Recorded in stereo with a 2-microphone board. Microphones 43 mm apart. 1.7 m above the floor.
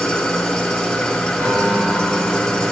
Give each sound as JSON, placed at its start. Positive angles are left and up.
{"t": 0.0, "sound": "an engine running", "side_deg": 15, "distance_m": 0.8}
{"t": 1.4, "sound": "a piano", "side_deg": -85, "distance_m": 2.5}